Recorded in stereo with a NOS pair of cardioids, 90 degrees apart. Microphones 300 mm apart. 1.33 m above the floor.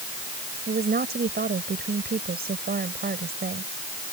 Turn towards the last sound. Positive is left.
turn(degrees=-30)